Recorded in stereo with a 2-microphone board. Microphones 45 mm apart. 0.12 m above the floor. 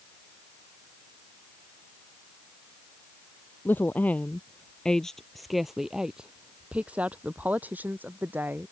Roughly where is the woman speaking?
Left.